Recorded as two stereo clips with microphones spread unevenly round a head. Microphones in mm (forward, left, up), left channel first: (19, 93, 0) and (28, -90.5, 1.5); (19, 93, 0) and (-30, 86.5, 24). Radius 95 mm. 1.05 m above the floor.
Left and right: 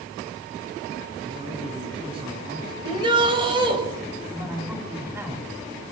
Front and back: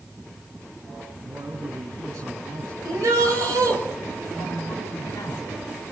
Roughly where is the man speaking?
Behind right.